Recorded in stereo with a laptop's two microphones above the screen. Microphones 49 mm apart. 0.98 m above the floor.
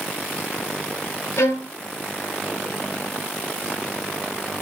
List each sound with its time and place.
1.4 s a violin: 70° left (ahead or behind), 1.5 m